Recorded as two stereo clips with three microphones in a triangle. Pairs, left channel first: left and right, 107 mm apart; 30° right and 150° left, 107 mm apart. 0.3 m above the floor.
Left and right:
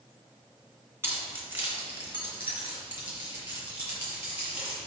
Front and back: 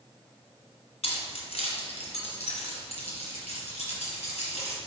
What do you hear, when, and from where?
1.0 s keys jangling: 25° right, 2.5 m; by 4.8 s 15° right, 6 m